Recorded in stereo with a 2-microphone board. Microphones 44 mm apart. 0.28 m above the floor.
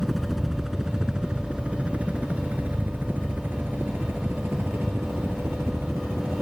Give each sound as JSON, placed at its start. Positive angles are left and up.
{"t": 0.0, "sound": "a helicopter", "side_deg": 0}